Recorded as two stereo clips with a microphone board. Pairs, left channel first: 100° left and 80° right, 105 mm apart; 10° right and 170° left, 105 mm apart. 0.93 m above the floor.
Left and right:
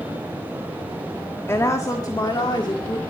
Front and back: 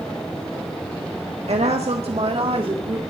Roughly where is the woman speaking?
Behind.